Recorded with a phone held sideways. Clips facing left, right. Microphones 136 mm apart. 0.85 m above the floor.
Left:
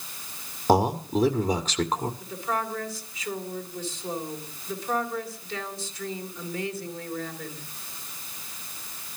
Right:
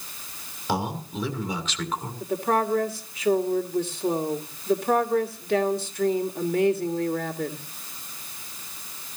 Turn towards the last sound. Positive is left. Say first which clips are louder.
# right 6 dB
turn(degrees=-65)  # may be behind; listen again after turning